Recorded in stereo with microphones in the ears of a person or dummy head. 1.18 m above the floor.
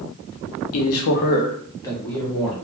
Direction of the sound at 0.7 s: 85° left.